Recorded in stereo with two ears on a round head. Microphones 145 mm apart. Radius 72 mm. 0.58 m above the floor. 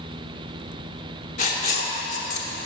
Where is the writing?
50° left (ahead or behind), 0.8 m.